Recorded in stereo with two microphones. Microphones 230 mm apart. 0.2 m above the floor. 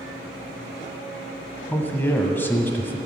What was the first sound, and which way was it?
A man speaking, 10° left (ahead or behind).